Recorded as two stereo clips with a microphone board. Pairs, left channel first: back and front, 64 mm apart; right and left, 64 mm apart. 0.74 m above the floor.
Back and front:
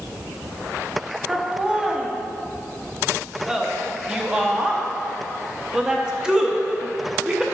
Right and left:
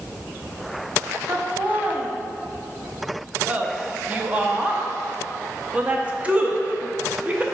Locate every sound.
1.3 s laughter: 65° left, 0.8 m